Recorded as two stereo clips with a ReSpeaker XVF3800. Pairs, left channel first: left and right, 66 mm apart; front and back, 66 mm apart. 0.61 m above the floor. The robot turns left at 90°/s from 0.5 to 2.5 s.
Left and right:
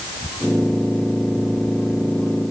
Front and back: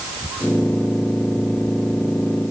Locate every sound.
Only background noise.